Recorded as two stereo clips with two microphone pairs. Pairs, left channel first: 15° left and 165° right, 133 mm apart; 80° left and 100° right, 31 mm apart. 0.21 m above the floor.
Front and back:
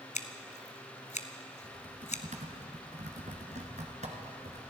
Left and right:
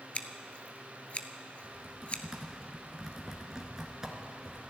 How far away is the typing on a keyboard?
About 1.9 m.